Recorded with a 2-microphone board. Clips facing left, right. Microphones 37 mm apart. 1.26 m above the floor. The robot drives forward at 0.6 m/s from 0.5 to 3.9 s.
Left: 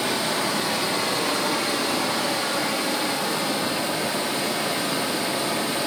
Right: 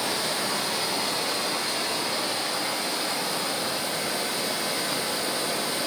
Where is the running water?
65° left (ahead or behind), 2 m; by 5.9 s 60° left (ahead or behind), 2 m.